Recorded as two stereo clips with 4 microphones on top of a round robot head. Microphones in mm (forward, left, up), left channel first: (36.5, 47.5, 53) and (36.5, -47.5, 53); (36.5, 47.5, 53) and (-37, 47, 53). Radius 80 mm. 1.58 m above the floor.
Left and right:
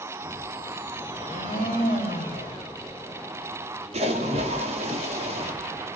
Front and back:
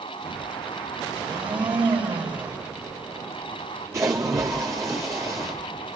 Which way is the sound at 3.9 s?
115° right.